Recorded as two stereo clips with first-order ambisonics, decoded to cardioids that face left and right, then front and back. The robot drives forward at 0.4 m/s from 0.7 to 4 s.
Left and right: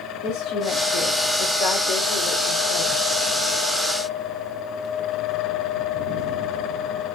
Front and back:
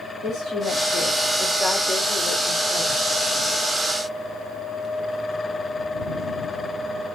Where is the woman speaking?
65° left, 2.5 m; by 3.0 s 85° left, 2 m.